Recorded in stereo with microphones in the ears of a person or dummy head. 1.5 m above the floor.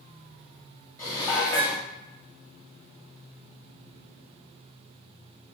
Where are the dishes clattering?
15° left (ahead or behind), 0.8 m.